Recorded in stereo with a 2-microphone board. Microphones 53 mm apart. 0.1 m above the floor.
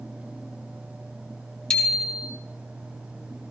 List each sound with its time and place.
1.7 s a bicycle bell: 15° left (ahead or behind), 2.5 m